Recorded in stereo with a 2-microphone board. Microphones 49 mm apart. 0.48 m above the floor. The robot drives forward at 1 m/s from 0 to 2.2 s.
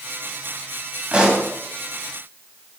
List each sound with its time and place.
1.1 s a pop: 20° right (ahead or behind), 3.5 m